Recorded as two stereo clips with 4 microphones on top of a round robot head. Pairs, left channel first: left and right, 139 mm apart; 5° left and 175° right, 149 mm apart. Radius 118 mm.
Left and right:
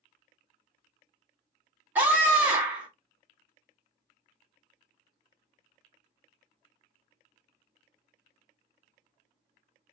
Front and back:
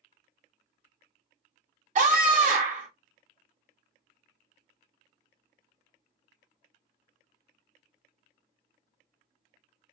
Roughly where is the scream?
Behind.